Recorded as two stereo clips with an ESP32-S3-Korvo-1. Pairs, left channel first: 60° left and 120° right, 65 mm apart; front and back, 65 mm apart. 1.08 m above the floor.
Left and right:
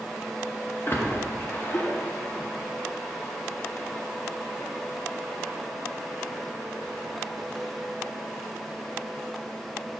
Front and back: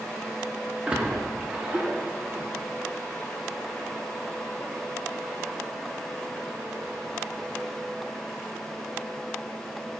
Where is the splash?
110° left, 0.8 m.